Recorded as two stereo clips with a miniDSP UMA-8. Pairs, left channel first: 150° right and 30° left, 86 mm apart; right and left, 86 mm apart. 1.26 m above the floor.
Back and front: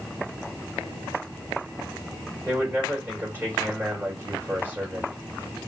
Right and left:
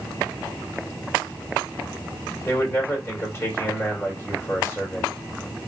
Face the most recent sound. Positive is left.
turn(degrees=-30)